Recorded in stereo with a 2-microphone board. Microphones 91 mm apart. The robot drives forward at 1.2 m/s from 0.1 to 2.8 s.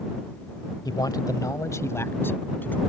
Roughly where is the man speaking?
Left.